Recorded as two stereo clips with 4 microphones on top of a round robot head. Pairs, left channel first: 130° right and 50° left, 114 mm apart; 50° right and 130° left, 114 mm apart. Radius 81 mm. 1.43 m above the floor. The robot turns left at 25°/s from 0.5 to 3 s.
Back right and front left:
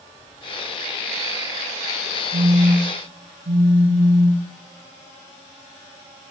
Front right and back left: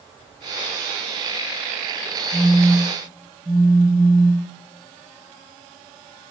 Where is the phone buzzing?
75° left, 1.2 m; by 4.5 s 55° left, 1.2 m.